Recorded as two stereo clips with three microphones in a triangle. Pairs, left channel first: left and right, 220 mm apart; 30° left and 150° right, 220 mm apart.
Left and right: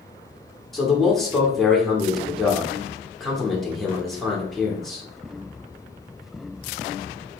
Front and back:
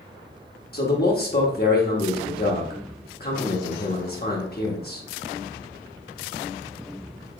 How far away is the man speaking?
About 1.1 m.